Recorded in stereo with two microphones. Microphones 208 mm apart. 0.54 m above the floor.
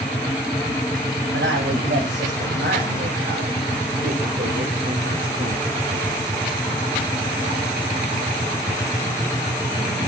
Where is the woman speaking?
70° right (ahead or behind), 4 m; by 5.8 s 40° right (ahead or behind), 1.7 m.